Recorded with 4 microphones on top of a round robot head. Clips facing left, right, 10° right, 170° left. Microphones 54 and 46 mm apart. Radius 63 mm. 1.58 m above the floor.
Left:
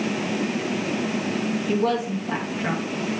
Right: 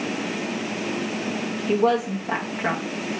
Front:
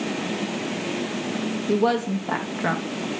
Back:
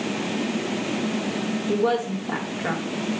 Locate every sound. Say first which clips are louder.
1.7 s a woman speaking: right 4 dB, front 2 dB; 15° right, 1.1 m